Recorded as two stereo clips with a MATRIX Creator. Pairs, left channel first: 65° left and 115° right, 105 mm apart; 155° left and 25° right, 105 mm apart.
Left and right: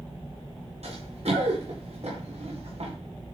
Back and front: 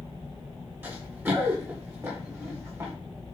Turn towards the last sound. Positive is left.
turn(degrees=-90)